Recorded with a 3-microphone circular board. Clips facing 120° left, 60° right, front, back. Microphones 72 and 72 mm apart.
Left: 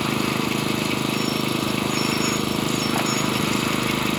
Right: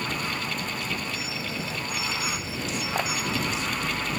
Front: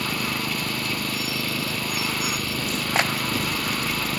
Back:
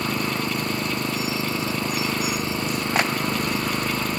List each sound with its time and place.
0.0 s an engine running: 115° left